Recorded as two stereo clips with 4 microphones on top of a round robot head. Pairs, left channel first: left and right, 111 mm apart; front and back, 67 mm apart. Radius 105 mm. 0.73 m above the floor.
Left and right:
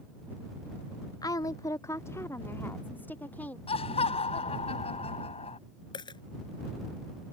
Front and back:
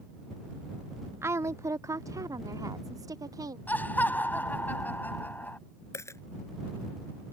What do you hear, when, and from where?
1.2 s a woman speaking: 140° left; by 3.6 s 165° left
3.7 s laughter: 65° left
5.9 s a dropped coin: 45° left